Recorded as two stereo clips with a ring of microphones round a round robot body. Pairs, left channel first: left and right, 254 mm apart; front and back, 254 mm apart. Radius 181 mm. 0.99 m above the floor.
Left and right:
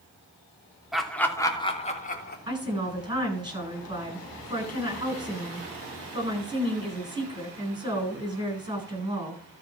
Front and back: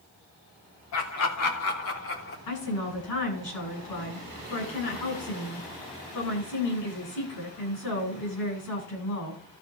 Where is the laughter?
Straight ahead, 3 m; by 2.4 s 40° left, 3.5 m.